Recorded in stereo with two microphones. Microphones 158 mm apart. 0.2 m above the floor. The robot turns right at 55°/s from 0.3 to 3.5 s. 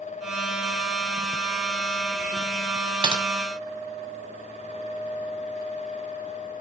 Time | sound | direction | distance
3.0 | typing on a keyboard | 30° right (ahead or behind) | 1.9 m